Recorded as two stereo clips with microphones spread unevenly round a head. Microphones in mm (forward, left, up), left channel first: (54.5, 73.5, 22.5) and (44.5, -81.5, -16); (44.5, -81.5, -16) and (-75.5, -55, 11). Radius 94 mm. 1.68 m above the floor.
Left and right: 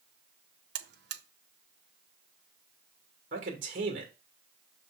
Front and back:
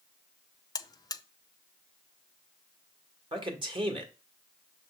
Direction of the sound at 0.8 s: 75° right.